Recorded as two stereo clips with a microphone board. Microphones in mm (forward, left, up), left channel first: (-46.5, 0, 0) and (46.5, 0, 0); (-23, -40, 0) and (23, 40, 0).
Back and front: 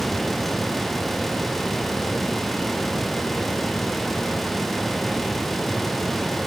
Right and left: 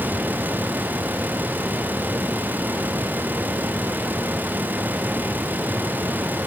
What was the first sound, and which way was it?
Only background noise.